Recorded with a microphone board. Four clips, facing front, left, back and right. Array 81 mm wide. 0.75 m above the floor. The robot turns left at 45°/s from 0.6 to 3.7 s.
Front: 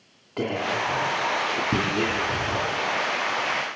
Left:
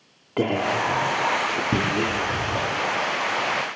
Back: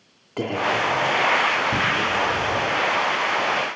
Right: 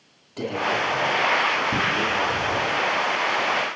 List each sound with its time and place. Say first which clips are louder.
0.4 s whispering: left 2 dB, back 3 dB; 95° left, 2 m; by 2.7 s 5° left, 2 m